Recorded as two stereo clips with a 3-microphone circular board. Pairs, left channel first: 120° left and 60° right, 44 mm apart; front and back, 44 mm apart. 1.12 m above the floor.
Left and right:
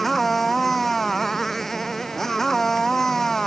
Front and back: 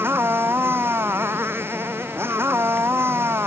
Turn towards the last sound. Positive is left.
turn(degrees=-155)